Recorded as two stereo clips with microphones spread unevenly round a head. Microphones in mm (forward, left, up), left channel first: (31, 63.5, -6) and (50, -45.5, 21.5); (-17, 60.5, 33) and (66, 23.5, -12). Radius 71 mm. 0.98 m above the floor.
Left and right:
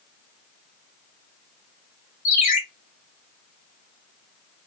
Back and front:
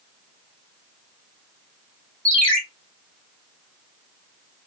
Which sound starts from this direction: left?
A ringtone, at 2.2 s.